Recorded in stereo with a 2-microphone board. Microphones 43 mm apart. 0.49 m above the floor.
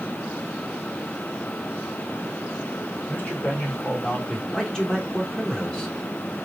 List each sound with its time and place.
3.1 s a man speaking: 45° left (ahead or behind), 1.7 m; by 4.4 s 30° left (ahead or behind), 1.1 m
4.5 s a man speaking: 15° left (ahead or behind), 1.0 m